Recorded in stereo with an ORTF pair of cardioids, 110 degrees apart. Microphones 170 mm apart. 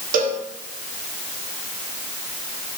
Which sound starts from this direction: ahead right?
A cowbell, at 0.1 s.